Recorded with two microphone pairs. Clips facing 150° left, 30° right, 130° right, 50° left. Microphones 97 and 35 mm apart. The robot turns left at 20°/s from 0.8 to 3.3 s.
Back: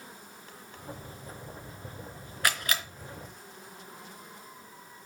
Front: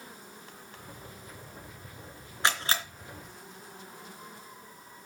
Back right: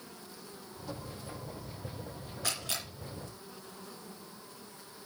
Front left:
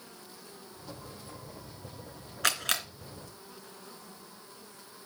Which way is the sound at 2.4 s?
35° left.